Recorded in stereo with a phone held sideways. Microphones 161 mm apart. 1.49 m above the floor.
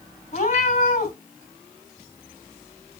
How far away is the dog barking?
No dog barking in this recording.